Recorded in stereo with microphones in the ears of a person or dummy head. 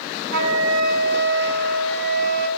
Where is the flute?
70° right (ahead or behind), 5.5 m.